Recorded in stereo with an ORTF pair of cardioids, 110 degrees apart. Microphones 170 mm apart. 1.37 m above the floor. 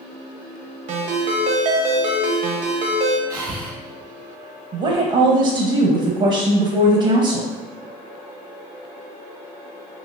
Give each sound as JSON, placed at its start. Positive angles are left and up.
{"t": 0.9, "sound": "a ringtone", "azimuth_deg": -50, "distance_m": 0.7}
{"t": 3.3, "sound": "breathing", "azimuth_deg": -70, "distance_m": 1.0}
{"t": 4.7, "sound": "a woman speaking", "azimuth_deg": -40, "distance_m": 0.7}